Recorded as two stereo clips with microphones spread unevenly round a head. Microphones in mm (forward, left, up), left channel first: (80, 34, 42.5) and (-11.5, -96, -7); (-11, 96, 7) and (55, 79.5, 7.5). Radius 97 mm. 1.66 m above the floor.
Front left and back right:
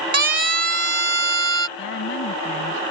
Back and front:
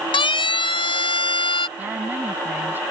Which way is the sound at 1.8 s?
50° left.